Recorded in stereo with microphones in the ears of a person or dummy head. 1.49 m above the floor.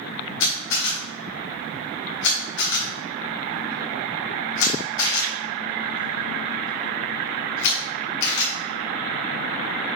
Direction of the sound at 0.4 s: 75° left (ahead or behind).